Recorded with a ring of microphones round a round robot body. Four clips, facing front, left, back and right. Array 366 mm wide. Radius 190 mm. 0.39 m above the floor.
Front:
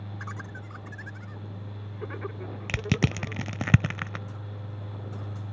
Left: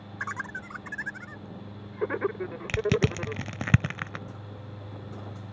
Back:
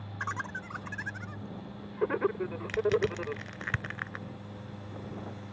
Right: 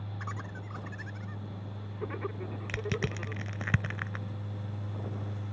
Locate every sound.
0.2 s laughter: 135° left
2.7 s crushing: 30° left